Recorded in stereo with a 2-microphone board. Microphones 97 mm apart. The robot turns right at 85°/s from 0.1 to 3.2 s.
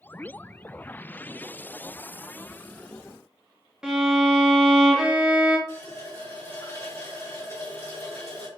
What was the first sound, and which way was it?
A violin, 5° right (ahead or behind).